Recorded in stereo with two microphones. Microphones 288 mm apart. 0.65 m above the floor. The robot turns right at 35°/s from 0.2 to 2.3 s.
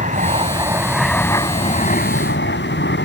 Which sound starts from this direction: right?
An aircraft, at 0.0 s.